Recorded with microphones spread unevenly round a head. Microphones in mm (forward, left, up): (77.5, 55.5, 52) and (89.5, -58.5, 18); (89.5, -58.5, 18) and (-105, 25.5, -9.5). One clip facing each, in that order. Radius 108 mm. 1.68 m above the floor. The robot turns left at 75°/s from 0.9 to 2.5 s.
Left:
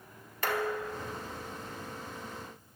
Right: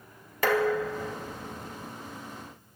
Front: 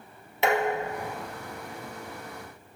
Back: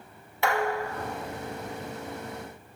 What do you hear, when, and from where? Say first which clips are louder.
0.4 s dishes clattering: right 7 dB, front 2 dB; 90° right, 2 m; by 1.9 s 165° right, 2 m